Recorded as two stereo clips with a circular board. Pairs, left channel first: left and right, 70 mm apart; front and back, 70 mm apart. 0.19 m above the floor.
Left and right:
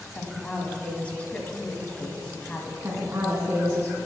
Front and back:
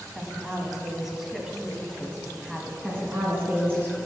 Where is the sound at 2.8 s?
125° right, 1.9 m.